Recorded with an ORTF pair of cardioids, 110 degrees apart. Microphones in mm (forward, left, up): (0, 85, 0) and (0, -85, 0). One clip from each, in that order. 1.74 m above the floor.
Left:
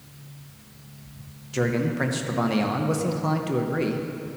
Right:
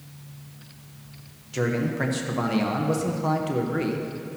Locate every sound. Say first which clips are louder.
1.5 s a man speaking: left 1 dB; 10° left, 0.8 m